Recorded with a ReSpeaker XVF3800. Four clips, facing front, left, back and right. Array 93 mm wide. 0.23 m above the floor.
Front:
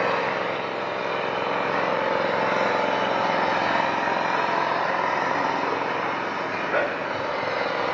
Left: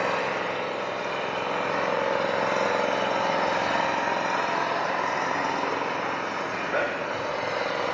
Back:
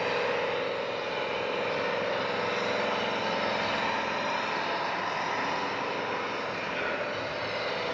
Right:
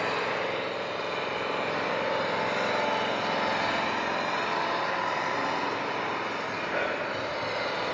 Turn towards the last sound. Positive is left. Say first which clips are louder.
# left 3 dB, front 5 dB
turn(degrees=20)